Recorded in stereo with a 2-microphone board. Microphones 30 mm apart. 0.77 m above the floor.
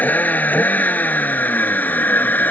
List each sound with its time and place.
0.0 s a vehicle: 60° left (ahead or behind); by 2.5 s 70° left (ahead or behind)